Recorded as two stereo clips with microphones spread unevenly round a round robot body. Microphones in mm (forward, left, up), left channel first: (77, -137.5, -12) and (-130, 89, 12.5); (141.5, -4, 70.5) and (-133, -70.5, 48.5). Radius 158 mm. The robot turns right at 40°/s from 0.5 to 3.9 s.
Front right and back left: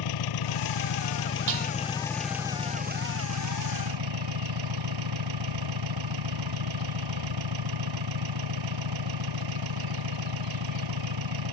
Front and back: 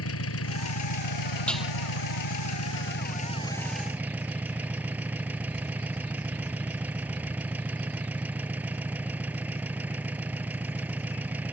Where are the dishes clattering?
100° left; by 1.7 s 110° left.